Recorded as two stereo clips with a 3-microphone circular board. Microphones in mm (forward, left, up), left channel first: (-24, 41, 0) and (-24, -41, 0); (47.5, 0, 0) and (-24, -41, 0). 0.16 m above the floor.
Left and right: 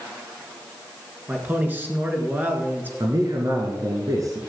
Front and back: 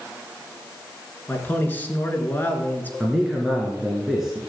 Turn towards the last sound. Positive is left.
turn(degrees=-65)